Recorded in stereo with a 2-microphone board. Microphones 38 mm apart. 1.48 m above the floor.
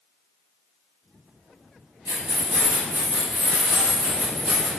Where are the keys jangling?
60° right (ahead or behind), 1.4 m; by 4.7 s 40° right (ahead or behind), 1.3 m.